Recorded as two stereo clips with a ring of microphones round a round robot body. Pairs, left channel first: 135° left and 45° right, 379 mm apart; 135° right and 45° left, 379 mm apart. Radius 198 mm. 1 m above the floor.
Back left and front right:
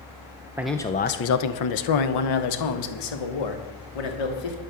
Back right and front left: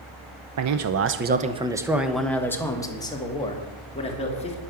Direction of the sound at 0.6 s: 35° left.